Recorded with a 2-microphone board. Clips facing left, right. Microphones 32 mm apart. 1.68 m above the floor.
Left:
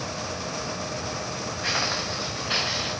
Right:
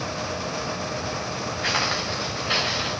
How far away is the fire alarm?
I don't hear a fire alarm.